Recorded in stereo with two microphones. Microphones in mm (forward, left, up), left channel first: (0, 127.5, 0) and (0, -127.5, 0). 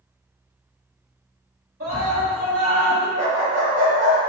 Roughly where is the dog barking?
Right.